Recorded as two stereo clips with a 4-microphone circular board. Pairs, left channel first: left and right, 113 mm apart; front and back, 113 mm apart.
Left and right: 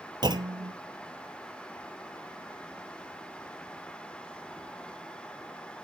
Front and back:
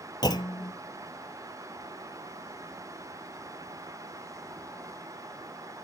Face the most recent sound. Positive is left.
turn(degrees=-45)